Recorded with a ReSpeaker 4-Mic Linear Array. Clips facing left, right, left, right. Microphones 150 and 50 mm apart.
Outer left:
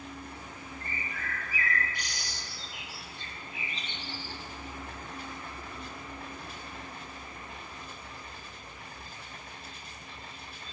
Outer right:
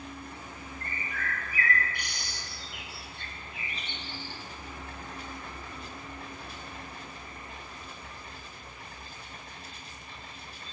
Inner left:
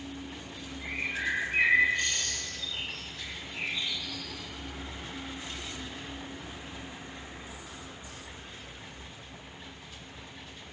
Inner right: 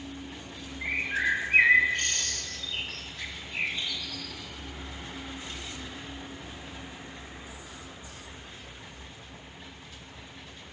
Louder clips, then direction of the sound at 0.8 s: Outer right 3 dB, inner right 5 dB; 60° right (ahead or behind).